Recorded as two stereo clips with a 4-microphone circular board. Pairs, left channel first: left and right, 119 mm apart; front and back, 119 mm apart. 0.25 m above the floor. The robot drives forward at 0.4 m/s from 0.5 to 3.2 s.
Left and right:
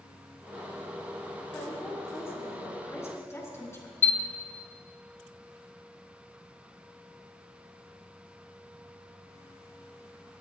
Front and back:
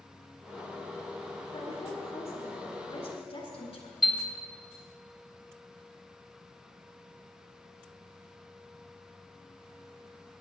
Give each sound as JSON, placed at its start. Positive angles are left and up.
{"t": 1.5, "sound": "a woman speaking", "azimuth_deg": 20, "distance_m": 4.0}
{"t": 4.0, "sound": "a chime", "azimuth_deg": 95, "distance_m": 1.2}